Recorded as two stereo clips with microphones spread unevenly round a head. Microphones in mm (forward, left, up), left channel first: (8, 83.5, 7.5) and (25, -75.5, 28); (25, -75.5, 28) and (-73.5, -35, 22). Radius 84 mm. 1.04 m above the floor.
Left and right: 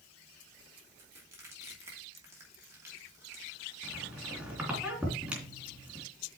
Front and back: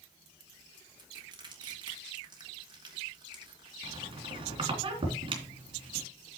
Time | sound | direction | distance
1.0 | crushing | 160° right | 2.5 m
3.8 | a squeak | 165° right | 3 m